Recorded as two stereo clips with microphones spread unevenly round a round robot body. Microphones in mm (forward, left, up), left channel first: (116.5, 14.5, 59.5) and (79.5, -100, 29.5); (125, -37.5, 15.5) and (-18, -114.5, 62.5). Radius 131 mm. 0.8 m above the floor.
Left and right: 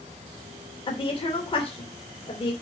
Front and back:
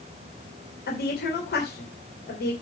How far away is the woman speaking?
About 2.5 m.